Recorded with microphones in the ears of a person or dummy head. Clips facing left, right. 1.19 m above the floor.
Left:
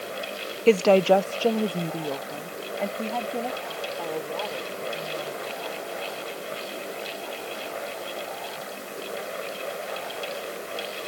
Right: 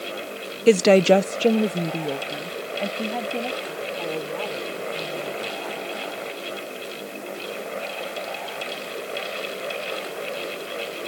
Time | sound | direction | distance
0.7 | a woman speaking | 10° right (ahead or behind) | ?